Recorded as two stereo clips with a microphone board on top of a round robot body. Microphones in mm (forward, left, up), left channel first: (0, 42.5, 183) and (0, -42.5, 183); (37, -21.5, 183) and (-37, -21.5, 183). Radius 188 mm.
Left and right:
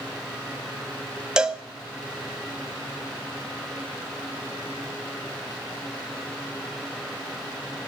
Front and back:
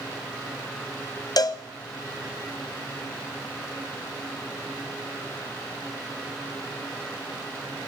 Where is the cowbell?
10° right, 0.5 m.